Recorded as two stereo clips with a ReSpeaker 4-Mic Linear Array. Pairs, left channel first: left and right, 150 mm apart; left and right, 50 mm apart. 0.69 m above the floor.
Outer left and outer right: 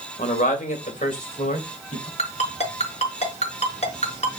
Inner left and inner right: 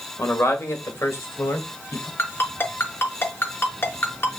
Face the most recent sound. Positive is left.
turn(degrees=45)  # may be behind; listen again after turning